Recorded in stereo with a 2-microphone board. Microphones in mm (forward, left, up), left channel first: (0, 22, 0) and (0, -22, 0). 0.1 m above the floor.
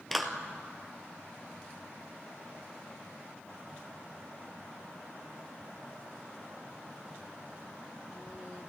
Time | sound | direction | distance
0.1 | a clap | centre (ahead or behind) | 1.6 m